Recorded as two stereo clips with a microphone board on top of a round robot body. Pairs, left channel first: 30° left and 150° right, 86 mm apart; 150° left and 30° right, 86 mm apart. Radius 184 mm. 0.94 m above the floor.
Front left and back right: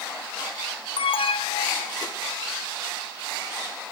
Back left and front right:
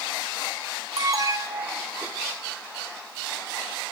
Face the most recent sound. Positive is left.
turn(degrees=20)